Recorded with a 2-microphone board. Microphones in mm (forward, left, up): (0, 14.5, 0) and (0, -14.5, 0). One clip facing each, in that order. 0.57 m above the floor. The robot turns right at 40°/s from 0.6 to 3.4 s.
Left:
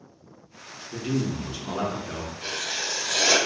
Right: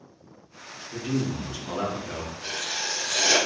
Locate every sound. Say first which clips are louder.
0.9 s a man speaking: left 1 dB; 25° left (ahead or behind), 0.6 m; by 2.3 s 20° left (ahead or behind), 0.6 m
2.4 s writing: left 1 dB; 65° left, 0.8 m; by 3.4 s 100° left, 0.8 m